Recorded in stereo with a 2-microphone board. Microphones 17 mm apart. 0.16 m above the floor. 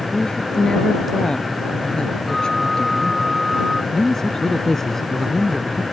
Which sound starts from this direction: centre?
A flute, at 2.3 s.